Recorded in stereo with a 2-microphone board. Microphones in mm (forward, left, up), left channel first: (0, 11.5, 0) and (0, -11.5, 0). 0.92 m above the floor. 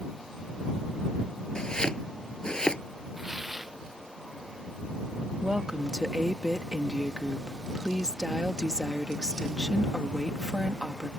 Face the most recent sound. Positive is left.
turn(degrees=-30)  # may be behind; listen again after turning